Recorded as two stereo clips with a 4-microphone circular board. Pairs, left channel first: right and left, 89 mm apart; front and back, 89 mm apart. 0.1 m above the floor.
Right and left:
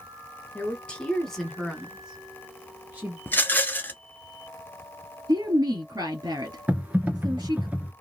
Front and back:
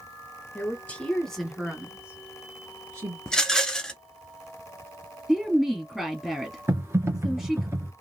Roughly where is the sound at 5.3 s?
Left.